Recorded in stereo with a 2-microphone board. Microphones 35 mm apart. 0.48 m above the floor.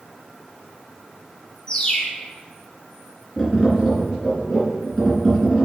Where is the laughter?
No laughter in this recording.